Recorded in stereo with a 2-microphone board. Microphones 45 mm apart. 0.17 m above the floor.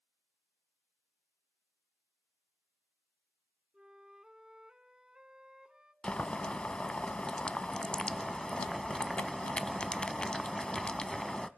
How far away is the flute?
About 0.5 m.